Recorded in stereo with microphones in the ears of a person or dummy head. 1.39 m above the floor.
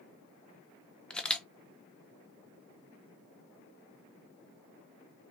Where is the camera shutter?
Centre (ahead or behind), 0.7 m.